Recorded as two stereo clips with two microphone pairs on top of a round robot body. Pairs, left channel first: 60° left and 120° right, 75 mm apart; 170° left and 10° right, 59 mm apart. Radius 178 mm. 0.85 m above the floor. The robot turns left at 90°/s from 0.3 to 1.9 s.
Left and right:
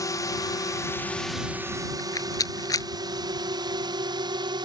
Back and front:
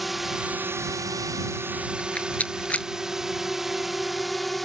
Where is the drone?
80° left; by 4.7 s 100° right.